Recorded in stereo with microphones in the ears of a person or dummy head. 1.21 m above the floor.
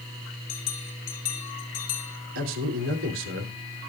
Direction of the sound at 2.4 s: 75° right (ahead or behind).